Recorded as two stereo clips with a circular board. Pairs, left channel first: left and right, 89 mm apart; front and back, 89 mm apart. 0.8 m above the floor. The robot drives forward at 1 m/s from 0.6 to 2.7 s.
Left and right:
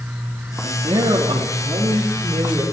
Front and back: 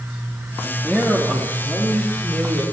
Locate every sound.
0.6 s a man speaking: 85° right, 1.7 m; by 2.6 s 145° right, 2.5 m